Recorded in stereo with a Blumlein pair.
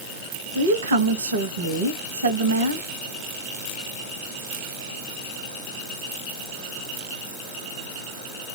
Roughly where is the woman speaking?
Right.